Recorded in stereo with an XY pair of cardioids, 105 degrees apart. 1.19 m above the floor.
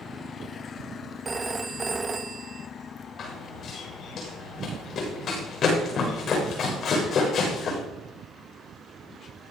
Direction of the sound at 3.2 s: 55° left.